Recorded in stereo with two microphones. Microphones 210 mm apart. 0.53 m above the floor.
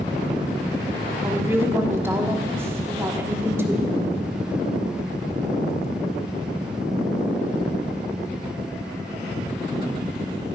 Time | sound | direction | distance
1.2 | a woman speaking | 10° right (ahead or behind) | 1.3 m